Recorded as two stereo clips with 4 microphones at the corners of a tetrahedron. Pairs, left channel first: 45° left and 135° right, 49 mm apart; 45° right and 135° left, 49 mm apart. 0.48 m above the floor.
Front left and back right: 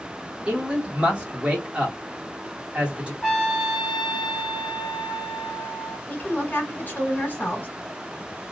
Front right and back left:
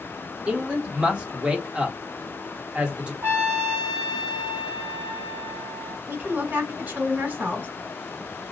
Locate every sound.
0.5 s a man speaking: straight behind, 1.0 m
3.2 s a trumpet: 130° left, 1.6 m
6.1 s a woman speaking: 90° left, 1.9 m